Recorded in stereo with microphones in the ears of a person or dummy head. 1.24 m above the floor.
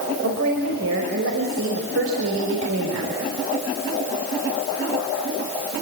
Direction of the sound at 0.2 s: 75° right (ahead or behind).